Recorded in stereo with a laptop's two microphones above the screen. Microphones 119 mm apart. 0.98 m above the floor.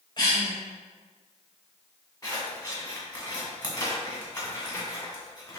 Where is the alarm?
I don't hear an alarm.